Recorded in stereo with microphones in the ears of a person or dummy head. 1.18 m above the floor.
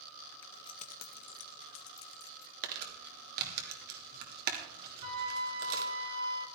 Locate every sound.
0.4 s keys jangling: 15° left (ahead or behind), 0.9 m; by 2.5 s 80° left, 2.5 m
2.6 s crumpling: 50° right (ahead or behind), 3 m
5.0 s a flute: 30° right (ahead or behind), 1.9 m